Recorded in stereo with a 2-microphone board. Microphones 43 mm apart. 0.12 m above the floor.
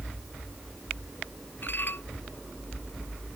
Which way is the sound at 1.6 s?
55° left (ahead or behind).